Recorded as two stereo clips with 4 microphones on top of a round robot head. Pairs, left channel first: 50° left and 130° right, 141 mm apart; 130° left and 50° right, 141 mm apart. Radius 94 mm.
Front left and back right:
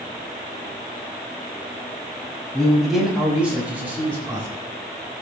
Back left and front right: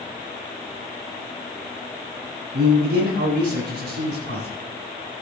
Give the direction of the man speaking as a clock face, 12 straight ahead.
1 o'clock.